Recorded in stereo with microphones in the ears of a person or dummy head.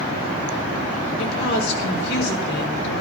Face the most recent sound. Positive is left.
turn(degrees=60)  # may be behind; listen again after turning